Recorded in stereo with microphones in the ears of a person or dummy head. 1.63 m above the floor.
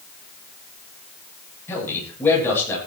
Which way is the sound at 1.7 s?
15° left (ahead or behind).